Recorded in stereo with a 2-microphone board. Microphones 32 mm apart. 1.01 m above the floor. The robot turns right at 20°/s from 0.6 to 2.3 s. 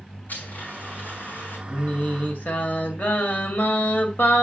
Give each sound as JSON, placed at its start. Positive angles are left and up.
{"t": 0.3, "sound": "a blender", "side_deg": 65, "distance_m": 5.0}
{"t": 1.7, "sound": "singing", "side_deg": 50, "distance_m": 1.9}